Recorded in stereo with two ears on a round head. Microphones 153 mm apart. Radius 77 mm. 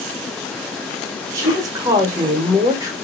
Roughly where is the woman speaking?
Right.